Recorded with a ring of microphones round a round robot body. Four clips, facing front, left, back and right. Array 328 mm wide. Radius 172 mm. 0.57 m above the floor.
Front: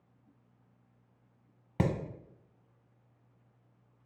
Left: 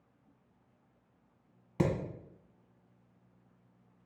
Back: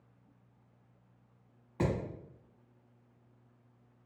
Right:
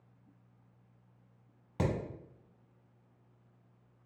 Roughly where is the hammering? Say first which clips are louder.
Left 3 dB, front 1 dB; ahead.